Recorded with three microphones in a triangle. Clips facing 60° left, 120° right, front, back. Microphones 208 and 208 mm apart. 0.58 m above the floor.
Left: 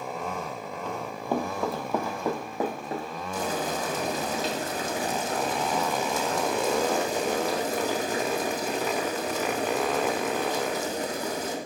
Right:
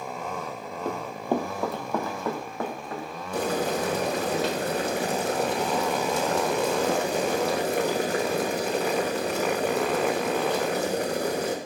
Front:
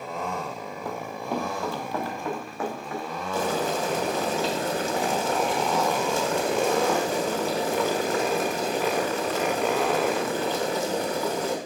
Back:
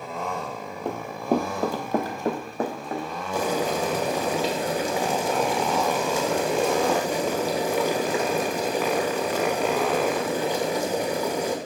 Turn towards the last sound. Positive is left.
turn(degrees=-105)